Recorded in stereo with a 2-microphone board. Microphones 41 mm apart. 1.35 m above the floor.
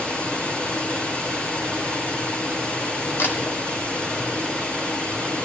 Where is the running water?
35° left (ahead or behind), 3.5 m.